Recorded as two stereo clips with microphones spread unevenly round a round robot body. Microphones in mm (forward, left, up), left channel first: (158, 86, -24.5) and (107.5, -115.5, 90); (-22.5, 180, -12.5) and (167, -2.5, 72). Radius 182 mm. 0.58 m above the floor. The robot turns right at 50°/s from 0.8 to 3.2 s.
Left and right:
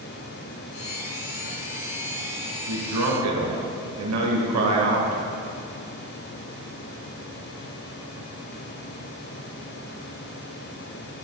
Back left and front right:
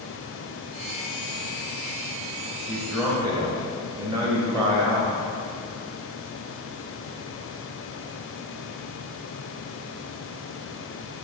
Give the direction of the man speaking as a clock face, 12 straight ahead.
5 o'clock.